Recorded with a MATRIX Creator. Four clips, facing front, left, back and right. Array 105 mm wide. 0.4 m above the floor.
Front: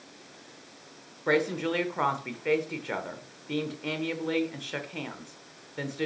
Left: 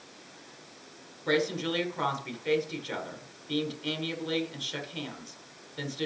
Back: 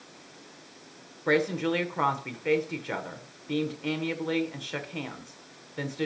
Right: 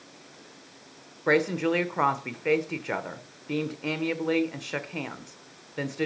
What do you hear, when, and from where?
1.3 s a woman speaking: 90° right, 1.1 m